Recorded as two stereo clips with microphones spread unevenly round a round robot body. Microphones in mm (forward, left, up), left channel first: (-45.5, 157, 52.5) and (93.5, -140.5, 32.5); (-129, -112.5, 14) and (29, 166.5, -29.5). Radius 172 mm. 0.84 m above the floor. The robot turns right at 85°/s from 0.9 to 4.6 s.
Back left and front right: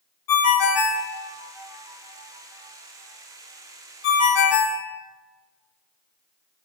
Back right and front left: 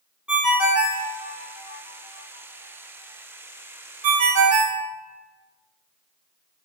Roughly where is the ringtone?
Behind left.